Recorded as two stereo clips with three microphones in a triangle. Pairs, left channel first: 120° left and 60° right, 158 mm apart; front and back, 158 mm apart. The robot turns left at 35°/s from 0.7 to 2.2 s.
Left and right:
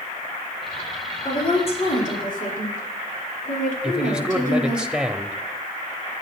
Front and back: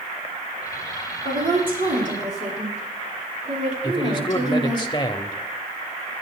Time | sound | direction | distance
1.2 | a woman speaking | straight behind | 6.5 m
3.8 | a man speaking | 20° left | 0.9 m